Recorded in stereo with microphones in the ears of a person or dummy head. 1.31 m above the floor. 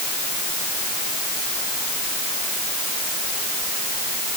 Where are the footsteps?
No footsteps in this recording.